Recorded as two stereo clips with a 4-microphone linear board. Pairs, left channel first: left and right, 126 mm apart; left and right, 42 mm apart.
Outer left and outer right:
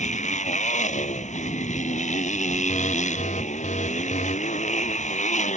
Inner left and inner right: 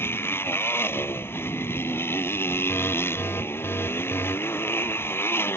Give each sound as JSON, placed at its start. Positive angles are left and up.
{"t": 0.0, "sound": "a motorcycle", "side_deg": 70}
{"t": 2.7, "sound": "an alarm", "side_deg": 80}